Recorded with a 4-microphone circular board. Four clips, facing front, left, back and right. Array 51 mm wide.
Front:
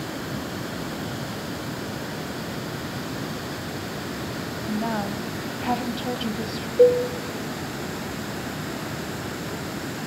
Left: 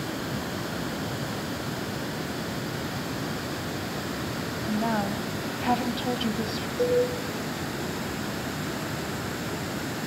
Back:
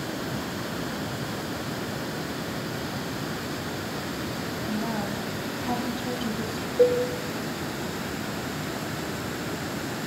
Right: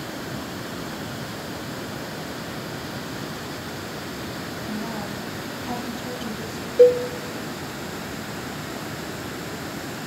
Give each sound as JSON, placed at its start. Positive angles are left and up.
{"t": 4.7, "sound": "a woman speaking", "azimuth_deg": 55, "distance_m": 2.0}
{"t": 6.8, "sound": "a cowbell", "azimuth_deg": -75, "distance_m": 2.5}